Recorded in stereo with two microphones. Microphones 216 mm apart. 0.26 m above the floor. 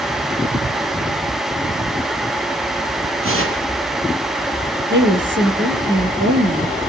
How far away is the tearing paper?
About 8 m.